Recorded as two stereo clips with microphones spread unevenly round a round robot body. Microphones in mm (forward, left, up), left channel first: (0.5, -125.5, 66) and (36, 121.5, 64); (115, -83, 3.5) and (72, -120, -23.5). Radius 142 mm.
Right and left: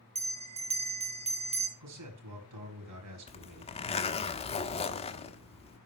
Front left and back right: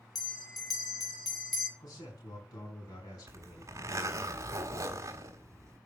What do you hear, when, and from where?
0.1 s a bell: 20° left, 3.5 m
1.8 s a man speaking: 75° left, 5 m
3.3 s a zipper: 165° right, 1.3 m